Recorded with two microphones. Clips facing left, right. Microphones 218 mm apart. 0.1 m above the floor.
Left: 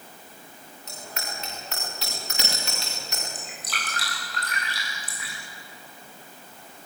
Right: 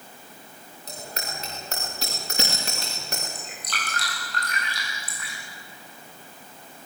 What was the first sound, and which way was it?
A bicycle bell, 40° right (ahead or behind).